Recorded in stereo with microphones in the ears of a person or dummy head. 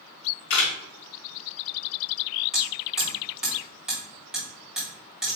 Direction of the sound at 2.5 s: 10° right (ahead or behind).